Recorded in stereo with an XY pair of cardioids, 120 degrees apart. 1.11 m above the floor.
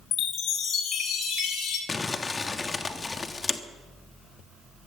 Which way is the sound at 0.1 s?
65° left.